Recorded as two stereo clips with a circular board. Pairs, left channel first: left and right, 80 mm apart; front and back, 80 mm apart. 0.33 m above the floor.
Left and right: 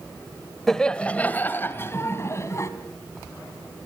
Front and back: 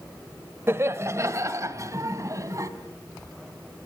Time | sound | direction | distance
0.7 | laughter | 170° left | 1.3 m